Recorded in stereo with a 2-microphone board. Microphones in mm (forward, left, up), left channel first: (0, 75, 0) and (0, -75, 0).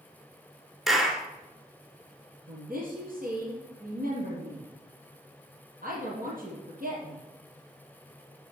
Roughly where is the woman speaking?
Right.